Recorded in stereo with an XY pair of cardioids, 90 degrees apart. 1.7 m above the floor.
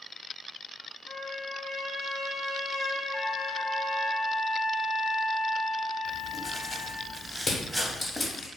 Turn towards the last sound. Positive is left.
turn(degrees=40)